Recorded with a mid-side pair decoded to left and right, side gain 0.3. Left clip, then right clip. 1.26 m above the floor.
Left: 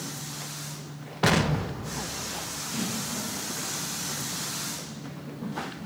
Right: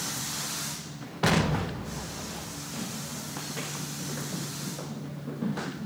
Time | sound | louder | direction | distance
1.2 | an explosion | left 2 dB | 25° left | 1.1 m